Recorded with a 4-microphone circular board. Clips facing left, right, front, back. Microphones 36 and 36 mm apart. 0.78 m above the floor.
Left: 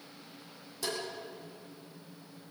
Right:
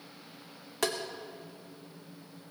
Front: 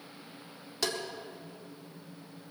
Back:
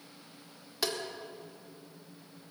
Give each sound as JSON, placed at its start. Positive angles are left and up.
{"t": 0.8, "sound": "tapping", "azimuth_deg": -100, "distance_m": 2.0}